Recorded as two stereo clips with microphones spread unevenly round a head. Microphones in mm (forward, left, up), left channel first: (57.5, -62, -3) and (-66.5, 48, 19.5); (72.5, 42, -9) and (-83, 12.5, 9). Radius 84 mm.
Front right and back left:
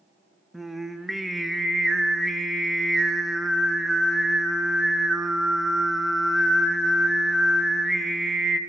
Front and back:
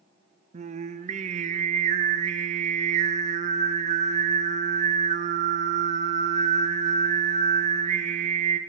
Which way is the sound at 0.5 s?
140° right.